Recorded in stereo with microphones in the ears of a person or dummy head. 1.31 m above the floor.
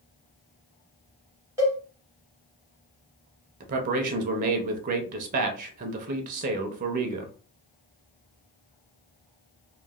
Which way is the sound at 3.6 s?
45° right (ahead or behind).